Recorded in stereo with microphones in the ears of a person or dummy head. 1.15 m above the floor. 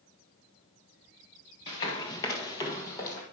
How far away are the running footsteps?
About 1.2 m.